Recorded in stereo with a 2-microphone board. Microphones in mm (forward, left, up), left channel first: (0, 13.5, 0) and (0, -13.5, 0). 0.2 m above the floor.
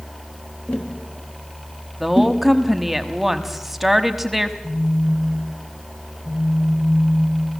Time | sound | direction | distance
0.7 | tapping | 70° left (ahead or behind) | 3.5 m
2.0 | a woman speaking | 5° right (ahead or behind) | 1.1 m
4.6 | a phone buzzing | 15° left (ahead or behind) | 7 m